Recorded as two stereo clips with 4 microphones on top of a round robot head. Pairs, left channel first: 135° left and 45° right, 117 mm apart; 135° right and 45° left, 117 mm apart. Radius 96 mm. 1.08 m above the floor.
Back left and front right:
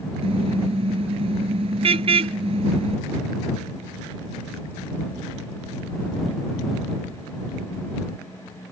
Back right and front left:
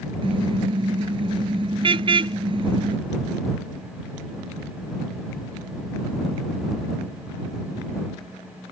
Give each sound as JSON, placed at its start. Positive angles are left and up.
{"t": 0.2, "sound": "a car horn", "azimuth_deg": -5}